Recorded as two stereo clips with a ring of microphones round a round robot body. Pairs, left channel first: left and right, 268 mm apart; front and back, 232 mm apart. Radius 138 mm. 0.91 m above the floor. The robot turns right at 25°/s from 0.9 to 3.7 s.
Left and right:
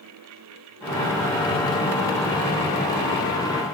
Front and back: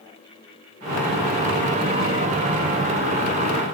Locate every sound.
Only background noise.